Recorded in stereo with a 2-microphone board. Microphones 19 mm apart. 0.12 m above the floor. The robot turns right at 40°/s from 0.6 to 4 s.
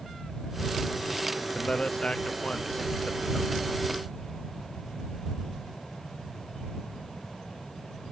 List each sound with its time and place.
1.6 s a man speaking: 50° left (ahead or behind); by 3.6 s 45° left (ahead or behind)